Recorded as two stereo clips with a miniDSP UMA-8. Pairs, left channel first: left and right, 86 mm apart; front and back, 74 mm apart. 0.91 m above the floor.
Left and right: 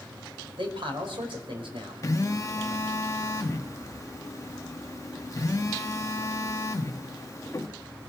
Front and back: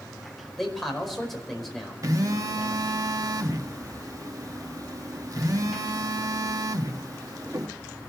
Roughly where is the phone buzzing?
Behind left.